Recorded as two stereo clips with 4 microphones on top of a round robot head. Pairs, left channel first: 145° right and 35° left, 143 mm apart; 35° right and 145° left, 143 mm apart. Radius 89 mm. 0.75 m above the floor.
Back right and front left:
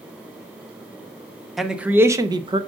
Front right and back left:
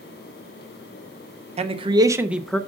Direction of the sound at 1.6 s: 125° left.